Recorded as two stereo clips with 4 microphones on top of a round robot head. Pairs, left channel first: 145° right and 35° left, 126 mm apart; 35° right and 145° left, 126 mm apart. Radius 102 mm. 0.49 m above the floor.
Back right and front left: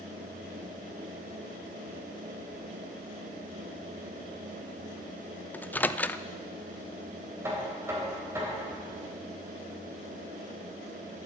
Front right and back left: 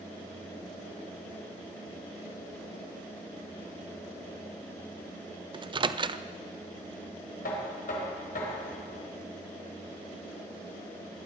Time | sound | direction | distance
5.5 | a microwave | 145° left | 0.5 m
7.4 | knocking | 35° right | 2.5 m